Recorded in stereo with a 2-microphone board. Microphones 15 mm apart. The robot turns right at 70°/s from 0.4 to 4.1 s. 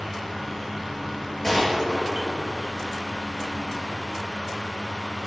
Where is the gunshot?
160° left, 5.5 m; by 2.7 s 115° right, 5.5 m.